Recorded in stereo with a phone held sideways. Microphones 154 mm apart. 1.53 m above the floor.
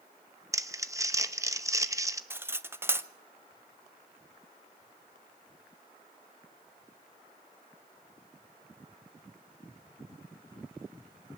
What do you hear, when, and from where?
0.5 s crumpling: 20° right (ahead or behind), 0.9 m
2.3 s cutlery clinking: 15° right (ahead or behind), 0.6 m